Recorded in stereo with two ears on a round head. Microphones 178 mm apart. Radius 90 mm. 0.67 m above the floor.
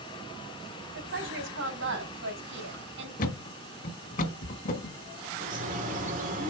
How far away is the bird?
About 2 m.